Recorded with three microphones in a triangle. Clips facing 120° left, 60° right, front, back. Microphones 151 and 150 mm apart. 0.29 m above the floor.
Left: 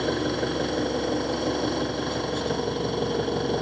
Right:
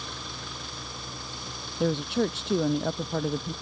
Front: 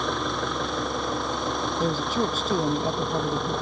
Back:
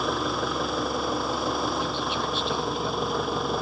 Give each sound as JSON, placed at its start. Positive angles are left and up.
{"t": 0.0, "sound": "an engine running", "azimuth_deg": 95}
{"t": 1.8, "sound": "a woman speaking", "azimuth_deg": -50}